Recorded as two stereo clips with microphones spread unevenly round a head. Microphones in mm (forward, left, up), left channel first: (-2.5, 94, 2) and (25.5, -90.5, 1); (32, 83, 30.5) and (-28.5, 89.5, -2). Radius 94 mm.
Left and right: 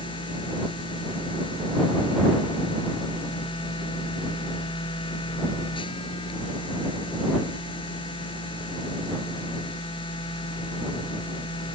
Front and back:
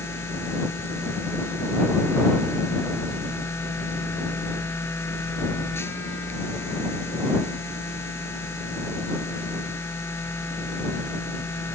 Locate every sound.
0.0 s a machine running: 35° left